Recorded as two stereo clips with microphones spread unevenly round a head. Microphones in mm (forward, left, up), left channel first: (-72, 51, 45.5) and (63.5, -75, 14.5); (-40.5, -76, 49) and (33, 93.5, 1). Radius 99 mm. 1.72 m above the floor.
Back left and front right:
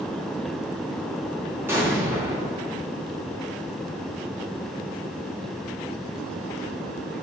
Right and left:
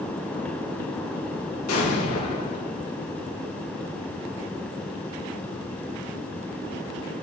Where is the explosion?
120° right, 4 m.